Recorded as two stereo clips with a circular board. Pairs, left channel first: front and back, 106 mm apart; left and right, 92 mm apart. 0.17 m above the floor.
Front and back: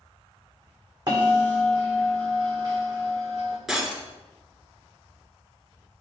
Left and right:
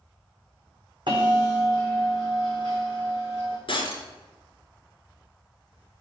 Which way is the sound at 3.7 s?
95° left.